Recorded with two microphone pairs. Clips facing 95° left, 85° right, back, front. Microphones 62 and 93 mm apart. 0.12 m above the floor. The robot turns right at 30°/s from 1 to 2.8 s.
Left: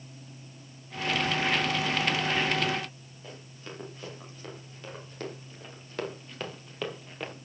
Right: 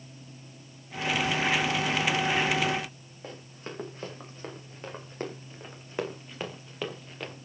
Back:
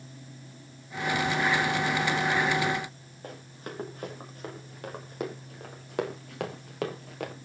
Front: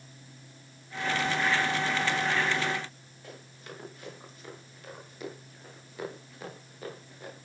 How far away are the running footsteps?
About 6.5 m.